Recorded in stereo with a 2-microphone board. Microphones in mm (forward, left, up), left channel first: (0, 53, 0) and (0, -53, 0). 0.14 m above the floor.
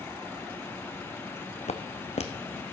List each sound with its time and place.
1.7 s footsteps: 80° left, 0.7 m